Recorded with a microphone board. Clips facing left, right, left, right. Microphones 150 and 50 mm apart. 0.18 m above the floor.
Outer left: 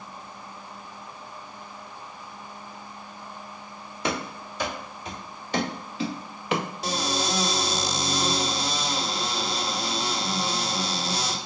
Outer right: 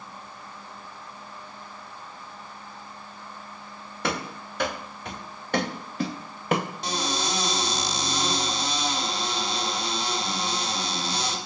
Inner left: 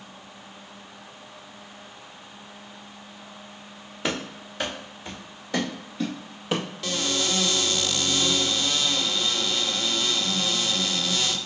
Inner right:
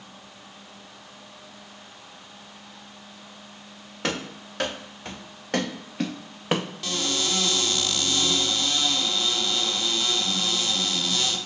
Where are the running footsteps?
65° right (ahead or behind), 3 m; by 6.7 s 45° right (ahead or behind), 1.0 m.